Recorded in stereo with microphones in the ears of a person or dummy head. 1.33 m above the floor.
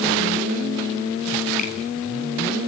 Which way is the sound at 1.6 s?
50° left (ahead or behind).